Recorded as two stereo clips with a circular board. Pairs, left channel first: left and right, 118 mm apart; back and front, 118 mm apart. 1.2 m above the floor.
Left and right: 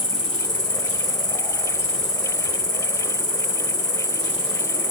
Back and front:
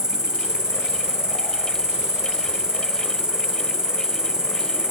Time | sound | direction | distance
0.0 | an insect | 80° left | 1.2 m